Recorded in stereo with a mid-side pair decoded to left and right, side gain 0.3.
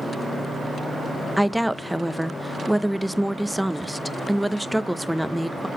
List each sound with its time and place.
1.4 s a woman speaking: 5° right, 0.6 m